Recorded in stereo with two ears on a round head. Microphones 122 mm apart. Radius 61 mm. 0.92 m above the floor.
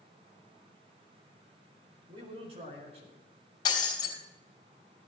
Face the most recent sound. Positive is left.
turn(degrees=30)  # may be behind; listen again after turning